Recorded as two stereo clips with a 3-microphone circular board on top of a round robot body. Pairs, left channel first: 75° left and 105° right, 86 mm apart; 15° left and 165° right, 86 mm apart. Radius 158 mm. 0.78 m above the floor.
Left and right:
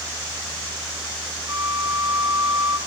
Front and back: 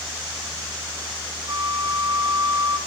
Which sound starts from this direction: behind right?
A flute, at 1.5 s.